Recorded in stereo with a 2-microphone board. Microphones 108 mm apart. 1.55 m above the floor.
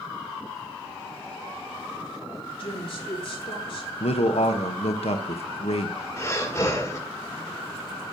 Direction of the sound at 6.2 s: 25° left (ahead or behind).